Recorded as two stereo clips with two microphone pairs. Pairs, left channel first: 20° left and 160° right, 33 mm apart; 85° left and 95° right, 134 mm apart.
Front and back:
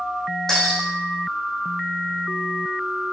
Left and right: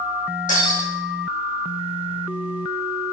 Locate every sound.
0.5 s breaking glass: 100° left, 4.5 m